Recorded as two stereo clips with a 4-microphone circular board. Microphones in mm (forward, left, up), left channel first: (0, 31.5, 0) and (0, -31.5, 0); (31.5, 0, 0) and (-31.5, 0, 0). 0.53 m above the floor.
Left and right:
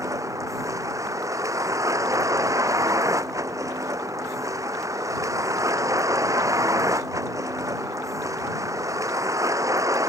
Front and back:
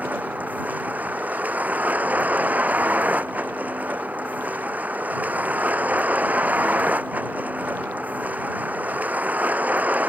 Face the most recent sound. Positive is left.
turn(degrees=-120)